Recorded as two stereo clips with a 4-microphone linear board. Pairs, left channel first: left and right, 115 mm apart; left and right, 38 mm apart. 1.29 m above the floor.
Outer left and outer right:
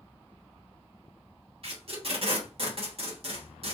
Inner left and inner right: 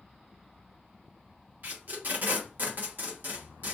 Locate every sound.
1.6 s tape being pulled: 55° right (ahead or behind), 1.3 m